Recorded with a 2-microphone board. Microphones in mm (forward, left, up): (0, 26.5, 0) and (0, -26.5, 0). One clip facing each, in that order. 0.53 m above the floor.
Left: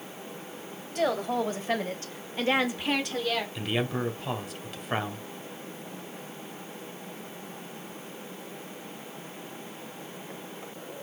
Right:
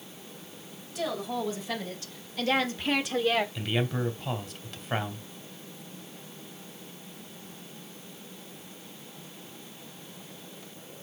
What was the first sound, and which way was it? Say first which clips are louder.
A woman speaking: left 5 dB; 55° left (ahead or behind).